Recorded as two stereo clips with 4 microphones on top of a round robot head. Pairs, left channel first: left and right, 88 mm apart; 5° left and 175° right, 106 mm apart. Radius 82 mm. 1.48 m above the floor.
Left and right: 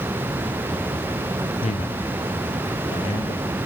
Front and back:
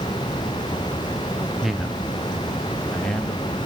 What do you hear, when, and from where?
1.6 s a man speaking: 95° left, 0.7 m; by 3.6 s 85° left, 2.5 m